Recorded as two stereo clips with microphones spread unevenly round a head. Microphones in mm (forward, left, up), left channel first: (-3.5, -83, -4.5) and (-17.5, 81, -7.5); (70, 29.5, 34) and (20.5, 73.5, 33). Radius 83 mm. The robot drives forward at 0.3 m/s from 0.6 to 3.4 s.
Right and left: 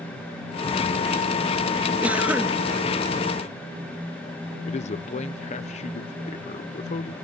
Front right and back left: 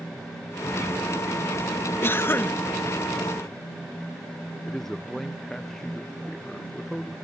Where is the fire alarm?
No fire alarm in this recording.